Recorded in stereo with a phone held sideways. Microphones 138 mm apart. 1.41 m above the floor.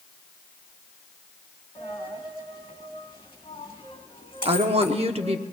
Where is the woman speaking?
45° right (ahead or behind), 0.9 m.